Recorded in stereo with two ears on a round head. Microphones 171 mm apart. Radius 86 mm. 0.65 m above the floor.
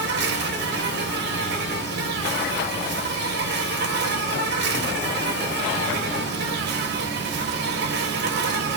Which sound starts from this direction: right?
An insect, at 0.0 s.